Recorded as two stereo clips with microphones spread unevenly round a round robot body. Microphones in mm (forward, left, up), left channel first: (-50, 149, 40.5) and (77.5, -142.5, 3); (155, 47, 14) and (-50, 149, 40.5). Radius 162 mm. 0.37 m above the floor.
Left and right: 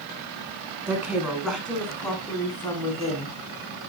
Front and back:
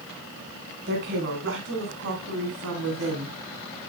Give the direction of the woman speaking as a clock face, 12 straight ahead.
5 o'clock.